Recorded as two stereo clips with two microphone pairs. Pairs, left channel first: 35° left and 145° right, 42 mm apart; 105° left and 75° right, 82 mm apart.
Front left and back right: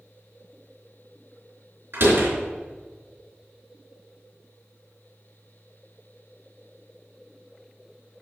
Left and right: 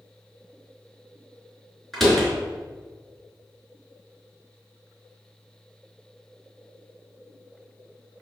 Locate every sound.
1.9 s a door slam: 170° right, 3.5 m